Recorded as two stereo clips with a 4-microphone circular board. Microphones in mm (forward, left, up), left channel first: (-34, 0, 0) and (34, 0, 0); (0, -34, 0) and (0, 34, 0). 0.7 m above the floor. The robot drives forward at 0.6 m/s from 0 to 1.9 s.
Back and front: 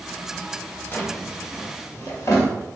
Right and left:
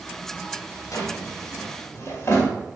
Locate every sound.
0.9 s a drawer: 125° right, 1.1 m; by 2.5 s 145° right, 1.5 m